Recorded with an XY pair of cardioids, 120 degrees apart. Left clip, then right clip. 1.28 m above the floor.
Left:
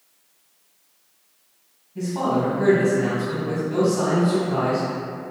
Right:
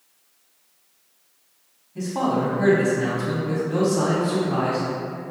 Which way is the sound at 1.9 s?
20° right.